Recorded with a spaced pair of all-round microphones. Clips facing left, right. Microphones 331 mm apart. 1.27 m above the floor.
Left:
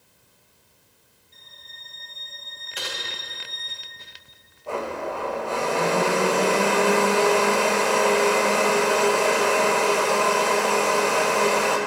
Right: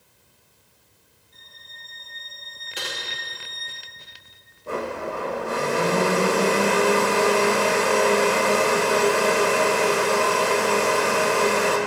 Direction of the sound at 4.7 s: 20° right (ahead or behind).